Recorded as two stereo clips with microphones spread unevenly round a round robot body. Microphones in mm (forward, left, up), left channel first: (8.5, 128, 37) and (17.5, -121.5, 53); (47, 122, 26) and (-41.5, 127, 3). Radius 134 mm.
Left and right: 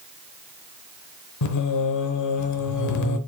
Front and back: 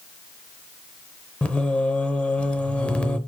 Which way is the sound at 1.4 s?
75° left.